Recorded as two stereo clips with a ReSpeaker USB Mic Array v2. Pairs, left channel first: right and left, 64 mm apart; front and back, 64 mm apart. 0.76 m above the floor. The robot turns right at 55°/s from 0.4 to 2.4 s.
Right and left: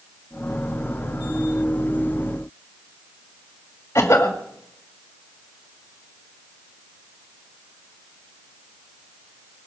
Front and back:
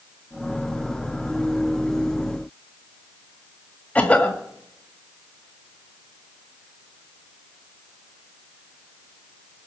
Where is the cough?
60° right, 1.6 m.